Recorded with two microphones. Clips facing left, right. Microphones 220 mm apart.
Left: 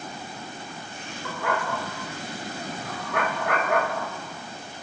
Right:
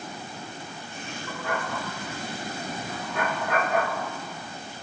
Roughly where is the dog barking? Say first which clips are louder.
Left 4 dB; left.